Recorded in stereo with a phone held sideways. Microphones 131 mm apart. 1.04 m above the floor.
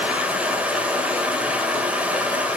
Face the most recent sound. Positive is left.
turn(degrees=-10)  # may be behind; listen again after turning